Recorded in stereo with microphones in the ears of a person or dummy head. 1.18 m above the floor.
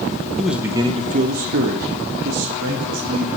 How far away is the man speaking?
About 0.7 m.